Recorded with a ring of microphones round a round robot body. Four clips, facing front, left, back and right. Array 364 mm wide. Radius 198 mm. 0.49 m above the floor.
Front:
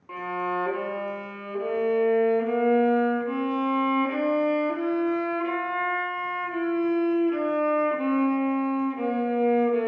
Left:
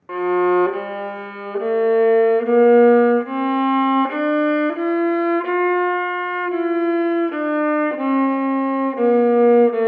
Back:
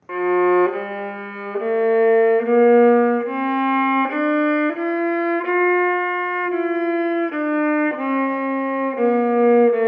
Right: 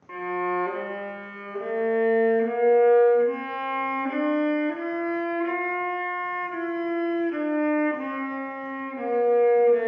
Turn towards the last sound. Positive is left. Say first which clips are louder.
# left 10 dB, back 13 dB
turn(degrees=125)